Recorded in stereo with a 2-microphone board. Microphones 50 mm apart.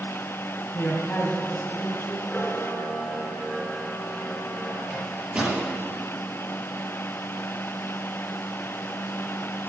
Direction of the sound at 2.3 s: 15° left (ahead or behind).